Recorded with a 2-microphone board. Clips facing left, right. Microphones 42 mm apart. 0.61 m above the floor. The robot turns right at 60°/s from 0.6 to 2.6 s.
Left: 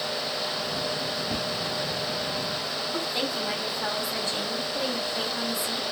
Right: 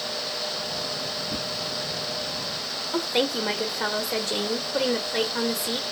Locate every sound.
1.3 s a whoosh: 75° left (ahead or behind), 3 m
2.9 s a woman speaking: 55° right (ahead or behind), 1.2 m